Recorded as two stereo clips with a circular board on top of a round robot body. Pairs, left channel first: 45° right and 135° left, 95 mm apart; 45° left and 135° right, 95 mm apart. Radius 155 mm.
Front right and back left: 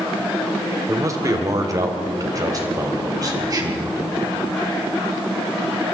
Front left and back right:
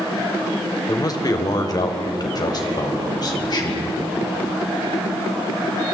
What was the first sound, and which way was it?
A man speaking, 85° left.